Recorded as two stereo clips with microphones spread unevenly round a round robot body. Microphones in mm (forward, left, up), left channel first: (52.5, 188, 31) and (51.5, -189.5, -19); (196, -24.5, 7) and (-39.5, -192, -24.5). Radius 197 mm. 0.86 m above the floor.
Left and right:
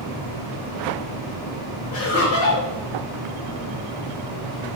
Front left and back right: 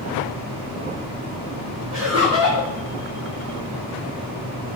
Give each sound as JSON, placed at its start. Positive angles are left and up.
{"t": 1.9, "sound": "laughter", "azimuth_deg": 145, "distance_m": 1.2}